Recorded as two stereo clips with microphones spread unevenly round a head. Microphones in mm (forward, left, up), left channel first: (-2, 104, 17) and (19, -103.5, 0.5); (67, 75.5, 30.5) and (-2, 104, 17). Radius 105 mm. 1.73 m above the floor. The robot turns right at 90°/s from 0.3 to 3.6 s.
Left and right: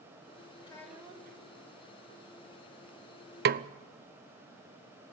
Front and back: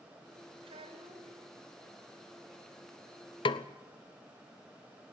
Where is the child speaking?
160° left, 4.5 m; by 1.4 s 130° right, 4.5 m.